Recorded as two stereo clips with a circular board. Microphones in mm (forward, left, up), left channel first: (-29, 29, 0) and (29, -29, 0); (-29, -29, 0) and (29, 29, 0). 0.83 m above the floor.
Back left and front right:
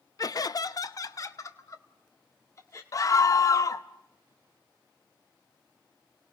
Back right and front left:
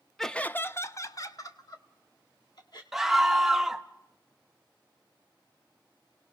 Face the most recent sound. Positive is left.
turn(degrees=130)